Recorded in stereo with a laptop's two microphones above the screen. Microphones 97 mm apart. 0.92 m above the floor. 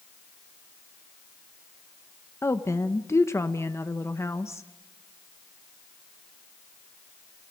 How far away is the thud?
I don't hear a thud.